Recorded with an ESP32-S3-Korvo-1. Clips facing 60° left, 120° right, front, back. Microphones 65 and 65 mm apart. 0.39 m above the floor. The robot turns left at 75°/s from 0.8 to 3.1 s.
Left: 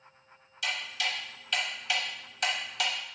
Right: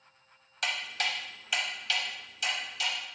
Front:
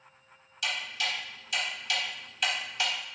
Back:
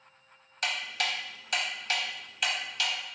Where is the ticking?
145° right, 0.6 m; by 2.9 s 55° left, 0.6 m.